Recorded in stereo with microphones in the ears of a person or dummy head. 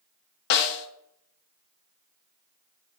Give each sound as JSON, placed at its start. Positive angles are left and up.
{"t": 0.5, "sound": "a snare drum", "side_deg": 55, "distance_m": 0.5}